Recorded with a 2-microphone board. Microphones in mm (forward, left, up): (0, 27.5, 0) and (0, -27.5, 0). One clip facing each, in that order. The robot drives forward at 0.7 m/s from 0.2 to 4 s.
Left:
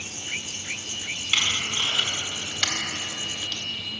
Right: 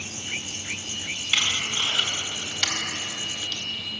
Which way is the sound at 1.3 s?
5° left (ahead or behind).